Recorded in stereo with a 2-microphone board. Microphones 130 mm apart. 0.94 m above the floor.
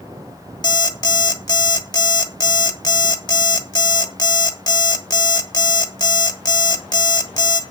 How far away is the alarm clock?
About 1.2 m.